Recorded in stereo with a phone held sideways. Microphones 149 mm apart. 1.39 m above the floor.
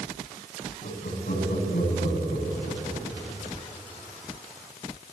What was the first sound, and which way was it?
Laughter, 90° left.